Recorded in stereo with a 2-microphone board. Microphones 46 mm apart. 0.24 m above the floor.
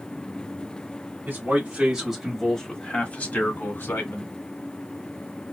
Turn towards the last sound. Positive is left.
turn(degrees=55)  # may be behind; listen again after turning